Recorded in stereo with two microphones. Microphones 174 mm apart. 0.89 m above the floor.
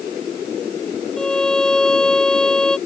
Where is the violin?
5° left (ahead or behind).